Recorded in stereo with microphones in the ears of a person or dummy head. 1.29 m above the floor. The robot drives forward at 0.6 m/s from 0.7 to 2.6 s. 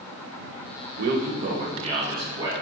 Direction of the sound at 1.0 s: 60° right (ahead or behind).